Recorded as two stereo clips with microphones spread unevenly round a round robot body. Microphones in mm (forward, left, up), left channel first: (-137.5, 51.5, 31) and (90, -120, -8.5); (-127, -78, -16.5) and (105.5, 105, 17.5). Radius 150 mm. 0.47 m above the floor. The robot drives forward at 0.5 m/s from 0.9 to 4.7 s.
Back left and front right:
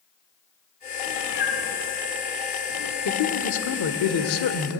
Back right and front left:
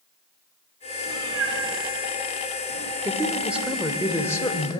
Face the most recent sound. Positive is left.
turn(degrees=145)